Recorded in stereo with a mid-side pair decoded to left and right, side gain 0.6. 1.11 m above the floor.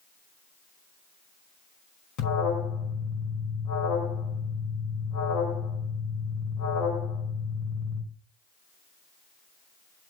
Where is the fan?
I don't hear a fan.